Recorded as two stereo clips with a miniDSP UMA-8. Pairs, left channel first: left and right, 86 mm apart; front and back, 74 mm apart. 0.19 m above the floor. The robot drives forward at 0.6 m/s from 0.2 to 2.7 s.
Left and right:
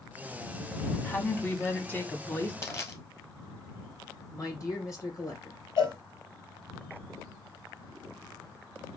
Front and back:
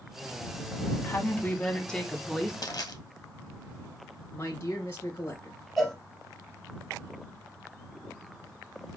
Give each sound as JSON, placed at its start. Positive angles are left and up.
{"t": 1.1, "sound": "a woman speaking", "azimuth_deg": 35, "distance_m": 1.5}
{"t": 2.6, "sound": "crushing", "azimuth_deg": 35, "distance_m": 1.6}
{"t": 4.3, "sound": "a man speaking", "azimuth_deg": 50, "distance_m": 2.5}
{"t": 5.8, "sound": "a cowbell", "azimuth_deg": 85, "distance_m": 3.0}